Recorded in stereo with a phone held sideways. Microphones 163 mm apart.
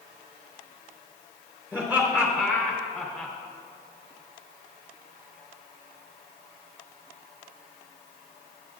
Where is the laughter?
10° right (ahead or behind), 4.5 m; by 3.3 s centre (ahead or behind), 4.5 m.